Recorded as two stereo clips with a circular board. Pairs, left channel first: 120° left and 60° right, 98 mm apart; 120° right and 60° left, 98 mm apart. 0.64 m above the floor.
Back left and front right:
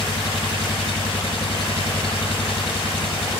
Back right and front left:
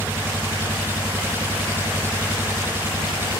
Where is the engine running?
125° left.